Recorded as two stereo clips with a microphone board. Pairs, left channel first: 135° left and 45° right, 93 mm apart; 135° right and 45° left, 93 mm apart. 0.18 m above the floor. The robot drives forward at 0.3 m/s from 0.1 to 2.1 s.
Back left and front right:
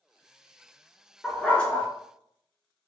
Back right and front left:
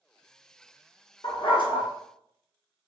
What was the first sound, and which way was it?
A dog barking, 145° right.